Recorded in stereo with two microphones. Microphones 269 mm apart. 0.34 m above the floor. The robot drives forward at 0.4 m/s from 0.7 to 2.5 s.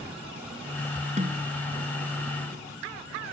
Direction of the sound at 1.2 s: 25° right (ahead or behind).